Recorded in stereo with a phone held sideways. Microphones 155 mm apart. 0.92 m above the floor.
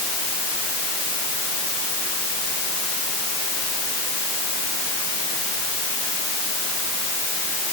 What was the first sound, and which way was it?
Only background noise.